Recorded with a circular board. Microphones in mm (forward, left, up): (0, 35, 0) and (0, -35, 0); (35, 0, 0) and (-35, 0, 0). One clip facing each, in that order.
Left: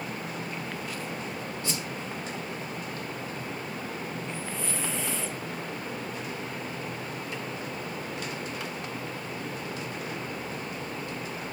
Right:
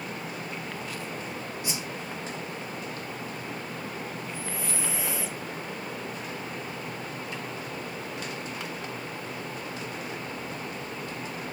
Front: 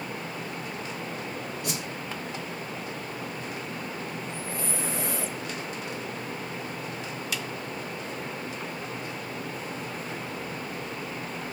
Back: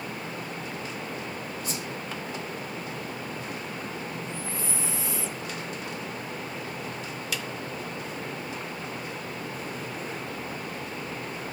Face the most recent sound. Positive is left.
turn(degrees=-10)